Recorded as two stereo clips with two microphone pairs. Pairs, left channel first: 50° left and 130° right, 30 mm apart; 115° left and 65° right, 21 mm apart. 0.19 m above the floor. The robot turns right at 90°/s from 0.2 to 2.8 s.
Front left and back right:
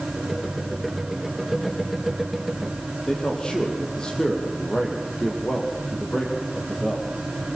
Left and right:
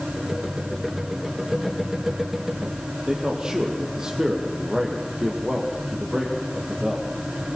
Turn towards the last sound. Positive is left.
turn(degrees=-10)